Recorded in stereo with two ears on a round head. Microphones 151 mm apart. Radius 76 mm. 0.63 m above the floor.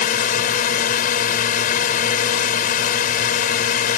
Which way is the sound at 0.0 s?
55° left (ahead or behind).